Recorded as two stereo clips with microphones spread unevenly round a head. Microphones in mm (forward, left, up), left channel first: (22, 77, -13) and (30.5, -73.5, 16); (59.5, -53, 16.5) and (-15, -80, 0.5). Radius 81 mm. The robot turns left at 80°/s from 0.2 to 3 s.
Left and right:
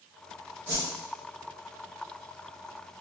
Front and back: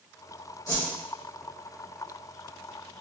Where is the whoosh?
15° right, 1.2 m; by 0.9 s 35° right, 1.2 m.